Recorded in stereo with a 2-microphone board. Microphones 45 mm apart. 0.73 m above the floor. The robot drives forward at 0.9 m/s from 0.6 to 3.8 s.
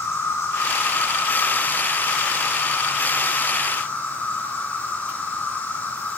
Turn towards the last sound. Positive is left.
turn(degrees=40)  # may be behind; listen again after turning